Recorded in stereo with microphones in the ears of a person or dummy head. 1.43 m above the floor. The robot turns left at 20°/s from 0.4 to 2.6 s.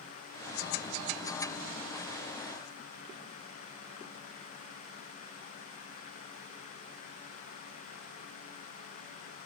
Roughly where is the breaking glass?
I don't hear breaking glass.